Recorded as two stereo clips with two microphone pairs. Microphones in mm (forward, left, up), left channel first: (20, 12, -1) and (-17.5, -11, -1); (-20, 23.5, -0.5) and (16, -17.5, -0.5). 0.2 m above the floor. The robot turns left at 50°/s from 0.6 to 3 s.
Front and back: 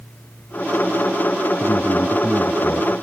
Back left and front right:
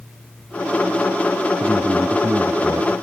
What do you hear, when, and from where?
1.6 s a man speaking: 30° left; by 2.9 s 40° right